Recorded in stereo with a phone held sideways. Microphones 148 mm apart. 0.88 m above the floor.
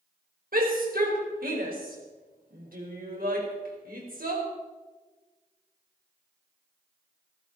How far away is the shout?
About 4.5 m.